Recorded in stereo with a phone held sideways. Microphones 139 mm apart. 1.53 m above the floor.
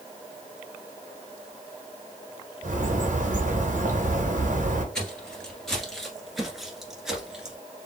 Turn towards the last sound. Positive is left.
turn(degrees=-5)  # may be behind; listen again after turning